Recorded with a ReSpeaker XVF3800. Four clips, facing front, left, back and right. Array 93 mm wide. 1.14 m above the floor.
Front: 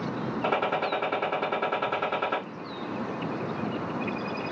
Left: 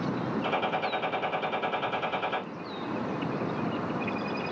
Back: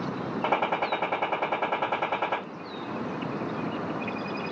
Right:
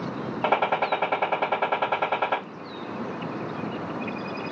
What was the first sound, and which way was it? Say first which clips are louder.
A gunshot: right 9 dB, back 1 dB; 110° right.